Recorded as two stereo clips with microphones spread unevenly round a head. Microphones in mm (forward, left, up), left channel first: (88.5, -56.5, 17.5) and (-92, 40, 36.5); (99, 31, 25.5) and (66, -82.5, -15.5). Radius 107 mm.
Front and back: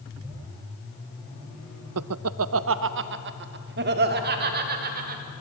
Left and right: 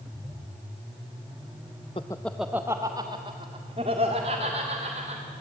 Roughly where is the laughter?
Behind left.